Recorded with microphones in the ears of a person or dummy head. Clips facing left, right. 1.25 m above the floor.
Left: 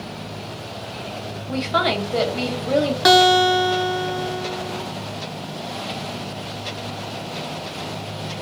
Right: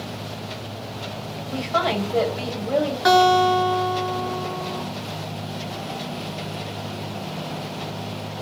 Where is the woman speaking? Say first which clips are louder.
Left 2 dB; 30° left (ahead or behind), 1.1 m.